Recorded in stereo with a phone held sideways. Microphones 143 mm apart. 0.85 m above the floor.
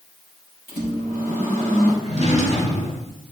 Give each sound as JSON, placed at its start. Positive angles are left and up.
{"t": 0.7, "sound": "a microwave", "side_deg": 80, "distance_m": 3.0}
{"t": 2.0, "sound": "a drawer", "side_deg": 55, "distance_m": 2.5}